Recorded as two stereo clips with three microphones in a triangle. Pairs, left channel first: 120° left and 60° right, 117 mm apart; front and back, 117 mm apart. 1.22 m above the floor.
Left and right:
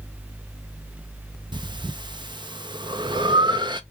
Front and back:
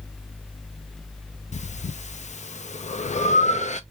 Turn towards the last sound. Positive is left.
turn(degrees=-10)